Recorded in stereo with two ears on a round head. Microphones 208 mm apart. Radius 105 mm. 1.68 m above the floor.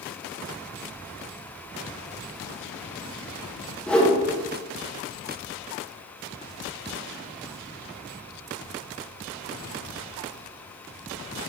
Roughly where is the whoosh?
Centre.